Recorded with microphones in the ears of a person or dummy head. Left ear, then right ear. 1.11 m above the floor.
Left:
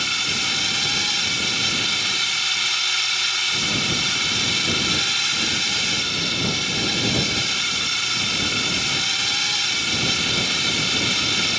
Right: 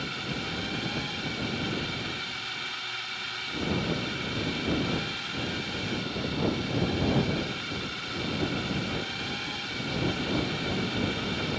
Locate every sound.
0.0 s a drone: 70° left (ahead or behind)